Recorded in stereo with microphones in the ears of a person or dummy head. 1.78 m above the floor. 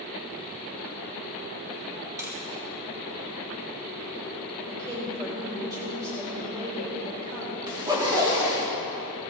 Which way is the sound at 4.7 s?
20° right (ahead or behind).